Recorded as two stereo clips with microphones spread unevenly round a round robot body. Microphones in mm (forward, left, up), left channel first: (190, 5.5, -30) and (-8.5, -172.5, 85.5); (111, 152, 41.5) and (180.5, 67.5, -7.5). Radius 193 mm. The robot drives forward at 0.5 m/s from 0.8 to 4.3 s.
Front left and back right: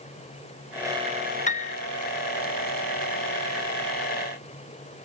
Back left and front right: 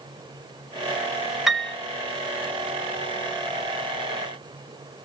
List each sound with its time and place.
1.5 s a piano: 15° left, 1.0 m; by 1.8 s 20° left, 0.9 m